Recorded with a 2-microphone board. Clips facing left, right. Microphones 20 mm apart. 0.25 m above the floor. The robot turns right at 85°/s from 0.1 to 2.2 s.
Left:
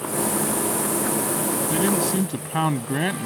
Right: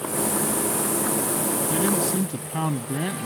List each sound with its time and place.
1.7 s a man speaking: 20° left; by 3.3 s 65° left